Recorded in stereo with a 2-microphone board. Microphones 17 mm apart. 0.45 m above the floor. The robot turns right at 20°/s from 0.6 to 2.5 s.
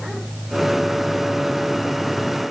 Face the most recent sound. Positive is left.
No sound to turn to.